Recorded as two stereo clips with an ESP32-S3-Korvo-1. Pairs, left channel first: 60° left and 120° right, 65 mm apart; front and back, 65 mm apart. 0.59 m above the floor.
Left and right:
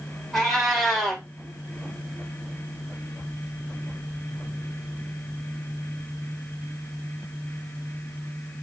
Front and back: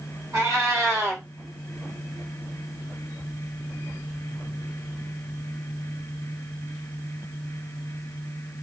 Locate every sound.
0.3 s a cat meowing: 145° left, 1.3 m